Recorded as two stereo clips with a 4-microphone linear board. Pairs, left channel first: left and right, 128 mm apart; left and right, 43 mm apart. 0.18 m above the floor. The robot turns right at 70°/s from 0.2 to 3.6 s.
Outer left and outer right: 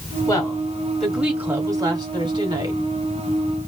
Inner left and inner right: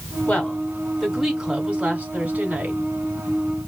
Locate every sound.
0.3 s a woman speaking: 125° left, 1.9 m; by 2.8 s 55° right, 1.9 m